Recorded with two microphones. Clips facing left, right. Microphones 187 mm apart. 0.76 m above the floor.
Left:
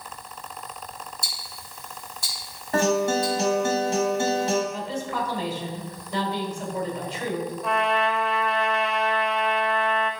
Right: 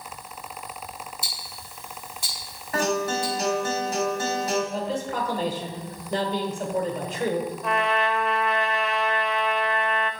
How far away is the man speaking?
About 2 m.